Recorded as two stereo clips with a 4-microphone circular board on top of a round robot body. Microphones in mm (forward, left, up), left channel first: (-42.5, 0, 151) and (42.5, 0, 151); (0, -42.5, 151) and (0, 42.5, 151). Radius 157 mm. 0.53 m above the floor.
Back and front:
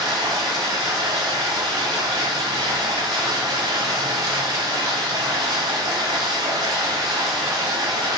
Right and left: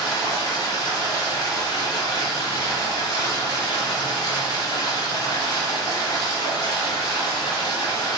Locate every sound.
0.0 s running water: 50° right, 0.9 m